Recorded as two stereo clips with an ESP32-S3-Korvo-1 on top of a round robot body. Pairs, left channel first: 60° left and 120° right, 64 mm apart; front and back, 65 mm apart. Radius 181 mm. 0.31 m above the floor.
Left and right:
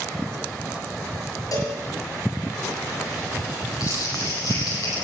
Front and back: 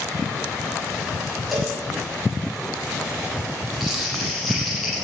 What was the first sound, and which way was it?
A cowbell, 85° left.